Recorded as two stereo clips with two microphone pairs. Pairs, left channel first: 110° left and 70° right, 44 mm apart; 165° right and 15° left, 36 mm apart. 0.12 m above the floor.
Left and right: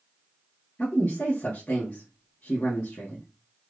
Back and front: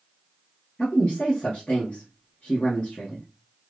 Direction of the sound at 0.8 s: 160° left.